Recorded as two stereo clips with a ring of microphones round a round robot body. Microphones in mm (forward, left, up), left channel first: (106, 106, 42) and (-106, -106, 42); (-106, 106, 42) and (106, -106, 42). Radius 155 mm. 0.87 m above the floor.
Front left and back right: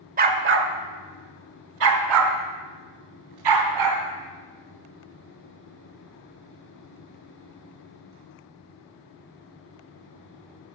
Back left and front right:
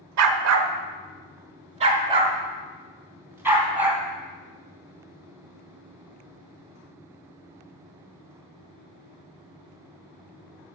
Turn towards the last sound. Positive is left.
turn(degrees=-130)